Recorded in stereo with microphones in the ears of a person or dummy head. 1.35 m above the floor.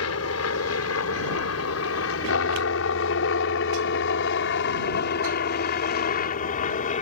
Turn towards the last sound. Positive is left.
turn(degrees=40)  # may be behind; listen again after turning